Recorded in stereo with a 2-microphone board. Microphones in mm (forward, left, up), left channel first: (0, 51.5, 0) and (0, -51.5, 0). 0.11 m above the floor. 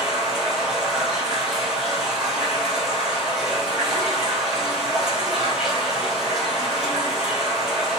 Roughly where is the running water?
Centre.